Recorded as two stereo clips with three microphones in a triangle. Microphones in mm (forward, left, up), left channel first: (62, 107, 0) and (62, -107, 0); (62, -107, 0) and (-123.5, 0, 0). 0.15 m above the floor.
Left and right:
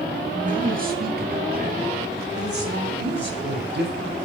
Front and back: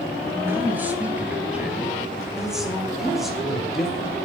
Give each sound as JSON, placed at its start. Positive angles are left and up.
{"t": 0.3, "sound": "a man speaking", "azimuth_deg": -135, "distance_m": 2.5}